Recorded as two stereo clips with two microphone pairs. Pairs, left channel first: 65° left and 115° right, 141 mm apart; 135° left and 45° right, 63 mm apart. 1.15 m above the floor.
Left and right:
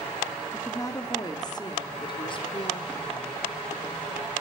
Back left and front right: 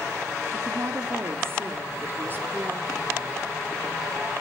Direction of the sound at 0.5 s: 5° right.